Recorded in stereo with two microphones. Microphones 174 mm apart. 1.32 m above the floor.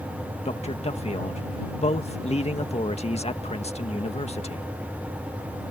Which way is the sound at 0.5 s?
40° left (ahead or behind).